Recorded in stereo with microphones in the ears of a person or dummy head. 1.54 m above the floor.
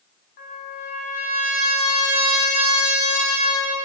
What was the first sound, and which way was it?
A trumpet, 55° left (ahead or behind).